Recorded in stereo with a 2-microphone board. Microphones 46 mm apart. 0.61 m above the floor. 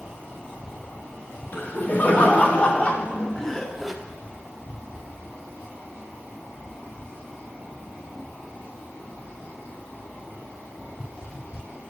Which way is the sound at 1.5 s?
40° left (ahead or behind).